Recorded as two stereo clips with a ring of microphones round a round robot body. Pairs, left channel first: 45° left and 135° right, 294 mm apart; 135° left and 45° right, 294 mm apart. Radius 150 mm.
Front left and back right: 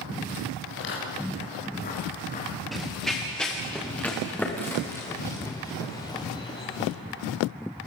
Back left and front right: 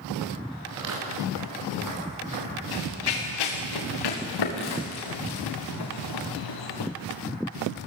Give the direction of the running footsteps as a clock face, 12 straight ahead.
8 o'clock.